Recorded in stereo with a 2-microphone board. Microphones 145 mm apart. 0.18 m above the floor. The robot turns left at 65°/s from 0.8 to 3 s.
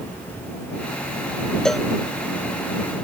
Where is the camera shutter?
I don't hear a camera shutter.